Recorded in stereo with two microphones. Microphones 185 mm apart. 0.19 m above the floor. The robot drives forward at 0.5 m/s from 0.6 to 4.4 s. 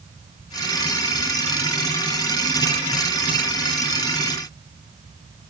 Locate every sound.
Only background noise.